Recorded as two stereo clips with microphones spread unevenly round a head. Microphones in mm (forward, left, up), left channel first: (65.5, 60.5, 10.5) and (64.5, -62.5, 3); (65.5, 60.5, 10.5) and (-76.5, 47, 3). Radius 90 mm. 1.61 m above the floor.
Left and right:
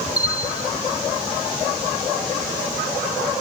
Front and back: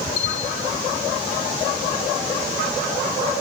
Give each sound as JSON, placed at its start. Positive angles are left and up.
{"t": 0.2, "sound": "a bell", "azimuth_deg": -10}